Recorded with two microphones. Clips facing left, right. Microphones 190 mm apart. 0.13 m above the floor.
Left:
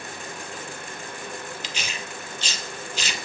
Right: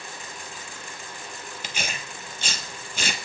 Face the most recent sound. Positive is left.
turn(degrees=-50)  # may be behind; listen again after turning